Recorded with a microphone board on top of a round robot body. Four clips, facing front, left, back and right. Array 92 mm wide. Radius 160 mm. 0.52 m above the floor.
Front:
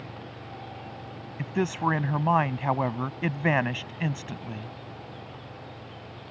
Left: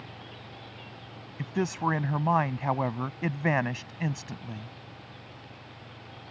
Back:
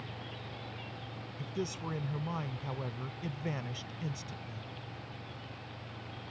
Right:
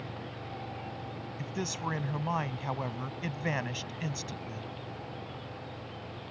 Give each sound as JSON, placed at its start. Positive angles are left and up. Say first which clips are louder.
{"t": 1.4, "sound": "a man speaking", "louder": "left 8 dB, front 12 dB", "azimuth_deg": 35}